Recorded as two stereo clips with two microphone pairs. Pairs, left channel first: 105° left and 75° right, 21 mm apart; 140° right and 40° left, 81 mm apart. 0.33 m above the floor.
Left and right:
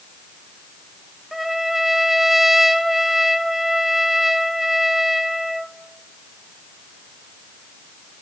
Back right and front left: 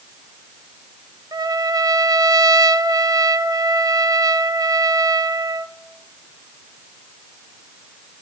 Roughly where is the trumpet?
Ahead.